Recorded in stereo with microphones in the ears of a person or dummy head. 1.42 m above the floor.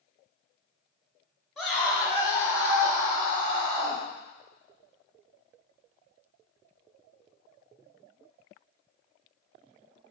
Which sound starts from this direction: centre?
A scream, at 1.6 s.